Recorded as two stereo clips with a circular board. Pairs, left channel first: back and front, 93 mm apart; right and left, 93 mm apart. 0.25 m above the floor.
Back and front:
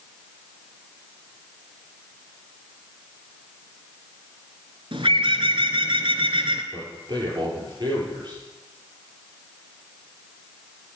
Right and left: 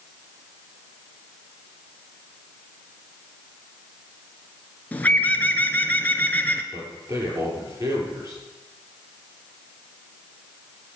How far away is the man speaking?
About 6.5 m.